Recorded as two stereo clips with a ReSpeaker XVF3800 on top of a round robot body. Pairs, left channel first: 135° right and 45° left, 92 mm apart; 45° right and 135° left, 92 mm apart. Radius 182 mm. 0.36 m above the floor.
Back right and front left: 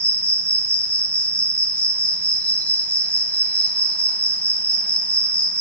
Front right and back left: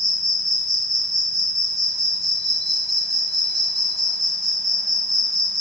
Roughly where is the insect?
Behind left.